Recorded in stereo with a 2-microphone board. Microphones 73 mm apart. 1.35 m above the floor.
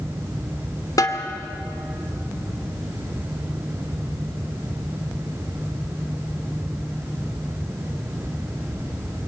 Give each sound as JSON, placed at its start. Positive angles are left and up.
{"t": 1.0, "sound": "a snare drum", "side_deg": 60, "distance_m": 2.5}